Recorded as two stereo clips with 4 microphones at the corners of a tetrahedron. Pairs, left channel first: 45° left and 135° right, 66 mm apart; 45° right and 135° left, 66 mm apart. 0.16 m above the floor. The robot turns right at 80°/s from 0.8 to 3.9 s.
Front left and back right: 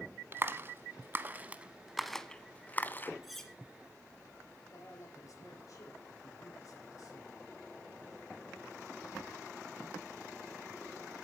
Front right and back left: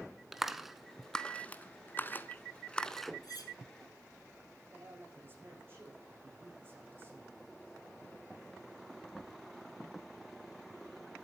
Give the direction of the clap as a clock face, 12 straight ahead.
5 o'clock.